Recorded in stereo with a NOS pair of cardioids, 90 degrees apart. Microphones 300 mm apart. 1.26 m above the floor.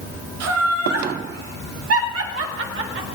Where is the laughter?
65° right, 4.5 m; by 3.0 s 50° right, 5 m.